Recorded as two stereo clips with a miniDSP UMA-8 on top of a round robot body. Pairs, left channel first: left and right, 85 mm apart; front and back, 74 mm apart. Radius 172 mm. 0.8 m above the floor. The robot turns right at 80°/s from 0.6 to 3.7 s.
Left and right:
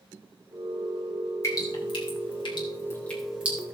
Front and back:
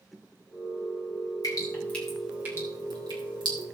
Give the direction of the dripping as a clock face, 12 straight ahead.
11 o'clock.